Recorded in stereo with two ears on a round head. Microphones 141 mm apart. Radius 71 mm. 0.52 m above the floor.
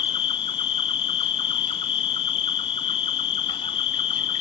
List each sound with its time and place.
0.0 s an insect: 35° left (ahead or behind), 0.7 m